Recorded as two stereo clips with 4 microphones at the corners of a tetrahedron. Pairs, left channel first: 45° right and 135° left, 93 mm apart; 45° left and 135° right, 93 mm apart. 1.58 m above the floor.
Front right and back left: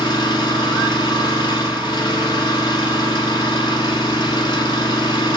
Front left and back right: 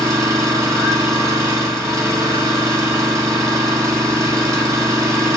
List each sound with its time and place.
0.0 s an engine running: 80° right, 2.5 m